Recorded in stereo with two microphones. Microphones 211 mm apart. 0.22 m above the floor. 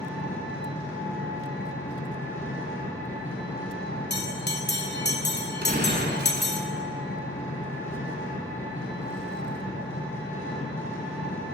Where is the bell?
55° left (ahead or behind), 0.5 m.